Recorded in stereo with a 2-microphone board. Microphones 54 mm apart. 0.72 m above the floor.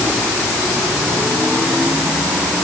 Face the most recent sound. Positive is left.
No sound to turn to.